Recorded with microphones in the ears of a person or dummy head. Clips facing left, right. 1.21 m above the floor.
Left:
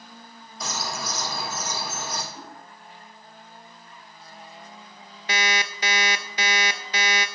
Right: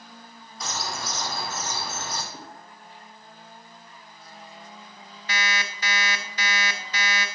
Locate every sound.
0.6 s a bird: centre (ahead or behind), 1.7 m
2.3 s a whoosh: 70° right (ahead or behind), 4.5 m
5.3 s an alarm clock: 20° left (ahead or behind), 0.6 m